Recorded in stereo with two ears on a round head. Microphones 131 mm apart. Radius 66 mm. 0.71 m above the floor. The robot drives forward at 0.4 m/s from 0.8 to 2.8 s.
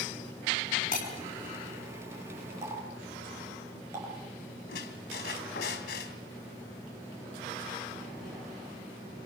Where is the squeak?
85° left, 3 m.